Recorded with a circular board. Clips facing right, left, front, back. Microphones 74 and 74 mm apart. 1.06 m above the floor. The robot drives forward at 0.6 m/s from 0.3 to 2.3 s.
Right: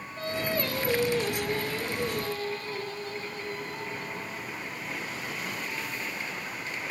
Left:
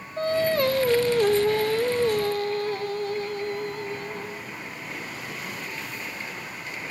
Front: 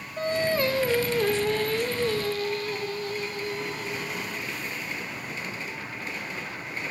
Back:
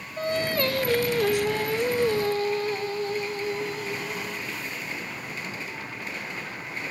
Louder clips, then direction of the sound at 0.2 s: Left 8 dB, front 1 dB; 65° left.